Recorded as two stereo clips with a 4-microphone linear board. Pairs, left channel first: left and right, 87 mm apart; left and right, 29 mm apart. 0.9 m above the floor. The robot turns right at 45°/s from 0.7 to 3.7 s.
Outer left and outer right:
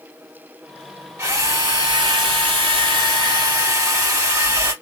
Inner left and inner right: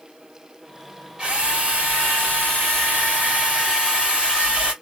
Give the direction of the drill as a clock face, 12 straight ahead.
5 o'clock.